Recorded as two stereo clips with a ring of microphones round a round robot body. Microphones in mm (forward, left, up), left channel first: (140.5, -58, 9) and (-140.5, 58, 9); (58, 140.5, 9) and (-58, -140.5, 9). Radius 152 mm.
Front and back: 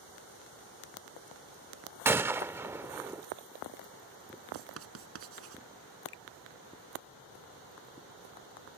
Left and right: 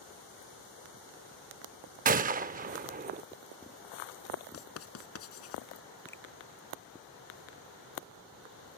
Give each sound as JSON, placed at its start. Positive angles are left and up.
{"t": 2.0, "sound": "a gunshot", "azimuth_deg": -130}
{"t": 4.5, "sound": "writing", "azimuth_deg": 110}
{"t": 6.1, "sound": "a finger snap", "azimuth_deg": -15}